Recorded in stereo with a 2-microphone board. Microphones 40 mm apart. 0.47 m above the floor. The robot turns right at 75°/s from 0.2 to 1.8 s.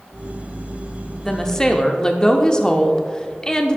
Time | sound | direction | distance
1.2 | a woman speaking | 10° left (ahead or behind) | 0.7 m